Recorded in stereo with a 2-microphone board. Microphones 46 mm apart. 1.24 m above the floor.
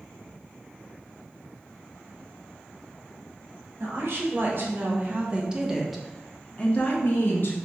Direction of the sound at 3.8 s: 55° right (ahead or behind).